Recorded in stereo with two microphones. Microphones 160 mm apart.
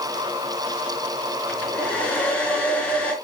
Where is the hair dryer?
10° left (ahead or behind), 3.5 m.